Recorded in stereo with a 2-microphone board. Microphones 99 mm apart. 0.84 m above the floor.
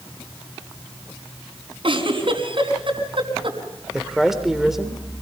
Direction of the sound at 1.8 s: 55° right (ahead or behind).